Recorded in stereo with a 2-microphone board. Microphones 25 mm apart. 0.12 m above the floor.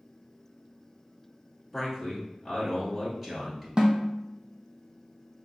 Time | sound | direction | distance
1.7 | a man speaking | 10° right (ahead or behind) | 1.8 m
3.8 | a snare drum | 30° right (ahead or behind) | 1.2 m